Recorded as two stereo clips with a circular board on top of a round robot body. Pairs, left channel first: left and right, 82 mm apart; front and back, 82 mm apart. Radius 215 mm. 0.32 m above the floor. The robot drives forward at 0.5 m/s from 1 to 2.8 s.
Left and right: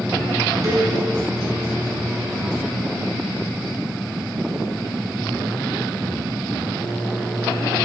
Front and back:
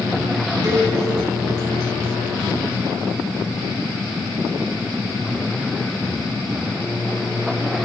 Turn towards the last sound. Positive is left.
turn(degrees=-145)